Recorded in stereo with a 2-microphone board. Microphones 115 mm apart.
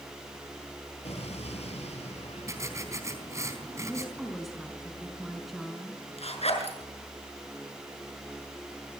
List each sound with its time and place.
1.0 s an explosion: 70° left (ahead or behind), 8 m
2.5 s writing: 25° right (ahead or behind), 4 m
3.8 s a woman speaking: centre (ahead or behind), 5 m
6.2 s a zipper: 65° left (ahead or behind), 6 m